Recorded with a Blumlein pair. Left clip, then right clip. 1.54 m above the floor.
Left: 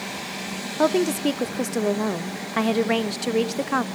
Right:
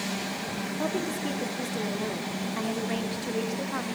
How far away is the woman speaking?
About 0.5 m.